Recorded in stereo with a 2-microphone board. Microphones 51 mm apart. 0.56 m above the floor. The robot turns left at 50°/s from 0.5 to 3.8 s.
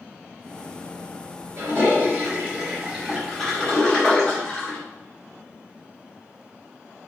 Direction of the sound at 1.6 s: 50° right (ahead or behind).